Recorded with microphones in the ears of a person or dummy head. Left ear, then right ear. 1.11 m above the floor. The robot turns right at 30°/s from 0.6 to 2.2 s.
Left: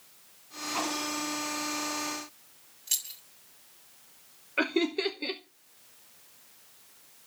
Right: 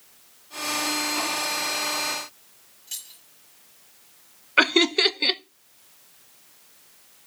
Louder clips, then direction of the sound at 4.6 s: Right 10 dB; 45° right (ahead or behind).